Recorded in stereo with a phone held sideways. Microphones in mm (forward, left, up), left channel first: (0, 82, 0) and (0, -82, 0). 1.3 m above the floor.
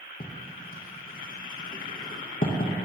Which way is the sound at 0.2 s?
55° left (ahead or behind).